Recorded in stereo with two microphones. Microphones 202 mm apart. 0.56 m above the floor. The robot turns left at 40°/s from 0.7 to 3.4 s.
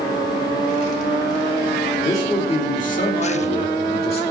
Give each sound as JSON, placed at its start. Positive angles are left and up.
{"t": 2.0, "sound": "a man speaking", "azimuth_deg": 160, "distance_m": 2.0}